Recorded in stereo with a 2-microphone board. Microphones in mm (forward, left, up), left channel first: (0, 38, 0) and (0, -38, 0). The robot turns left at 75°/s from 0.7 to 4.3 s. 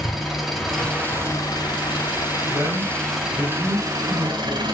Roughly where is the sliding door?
No sliding door in this recording.